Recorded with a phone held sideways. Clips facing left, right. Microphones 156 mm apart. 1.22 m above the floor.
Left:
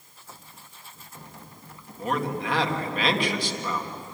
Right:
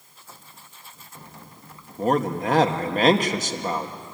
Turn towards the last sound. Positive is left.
turn(degrees=-40)  # may be behind; listen again after turning